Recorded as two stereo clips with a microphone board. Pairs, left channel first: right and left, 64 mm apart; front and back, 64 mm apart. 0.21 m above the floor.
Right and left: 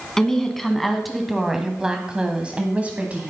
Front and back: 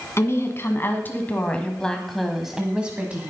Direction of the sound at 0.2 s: 10° right.